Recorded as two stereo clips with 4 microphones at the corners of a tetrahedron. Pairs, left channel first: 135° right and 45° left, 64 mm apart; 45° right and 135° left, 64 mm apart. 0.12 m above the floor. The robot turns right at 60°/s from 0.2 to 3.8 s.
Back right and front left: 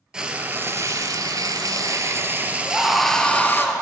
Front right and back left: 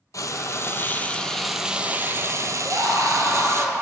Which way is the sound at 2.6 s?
105° left.